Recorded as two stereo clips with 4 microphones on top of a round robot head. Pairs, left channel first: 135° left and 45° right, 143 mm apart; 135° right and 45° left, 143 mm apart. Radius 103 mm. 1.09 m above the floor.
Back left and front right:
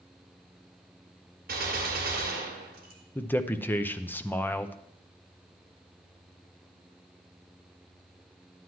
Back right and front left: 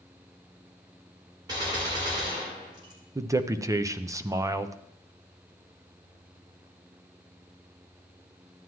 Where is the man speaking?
75° left, 0.6 m.